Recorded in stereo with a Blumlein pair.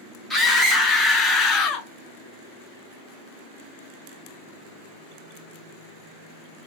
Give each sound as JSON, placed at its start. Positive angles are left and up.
{"t": 0.3, "sound": "a scream", "azimuth_deg": 5, "distance_m": 1.2}